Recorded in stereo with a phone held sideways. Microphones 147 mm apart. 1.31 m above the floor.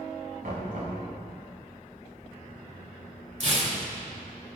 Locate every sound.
0.4 s knocking: 70° right (ahead or behind), 7.5 m
3.4 s tearing paper: 50° right (ahead or behind), 3.5 m